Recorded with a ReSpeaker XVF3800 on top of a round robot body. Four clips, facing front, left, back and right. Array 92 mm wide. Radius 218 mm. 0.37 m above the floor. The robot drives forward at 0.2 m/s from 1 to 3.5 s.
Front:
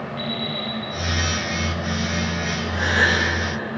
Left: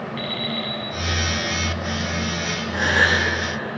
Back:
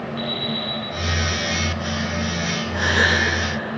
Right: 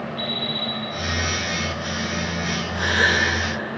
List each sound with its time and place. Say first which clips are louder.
0.2 s an alarm clock: left 1 dB, back 1 dB; 75° left, 7 m
2.7 s a gasp: left 2 dB, back 1 dB; 120° left, 7.5 m